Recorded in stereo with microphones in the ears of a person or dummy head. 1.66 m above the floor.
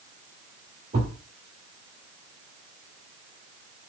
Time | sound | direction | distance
0.9 | a thud | 25° right (ahead or behind) | 1.9 m